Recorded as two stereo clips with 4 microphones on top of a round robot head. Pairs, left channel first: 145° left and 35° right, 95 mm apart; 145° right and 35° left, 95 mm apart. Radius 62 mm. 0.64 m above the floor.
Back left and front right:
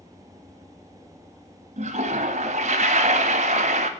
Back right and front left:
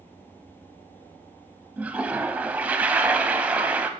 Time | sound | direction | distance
1.8 | a toilet flushing | 40° right | 0.6 m